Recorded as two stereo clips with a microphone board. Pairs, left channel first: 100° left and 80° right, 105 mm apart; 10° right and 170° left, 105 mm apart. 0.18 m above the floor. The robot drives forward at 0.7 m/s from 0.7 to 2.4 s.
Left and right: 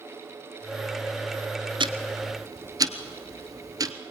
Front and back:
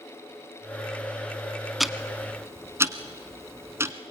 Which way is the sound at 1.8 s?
100° right.